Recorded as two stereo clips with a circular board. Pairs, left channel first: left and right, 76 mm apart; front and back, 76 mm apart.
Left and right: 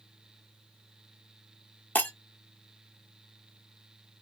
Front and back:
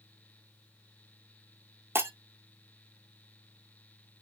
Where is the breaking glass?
140° left, 0.8 m.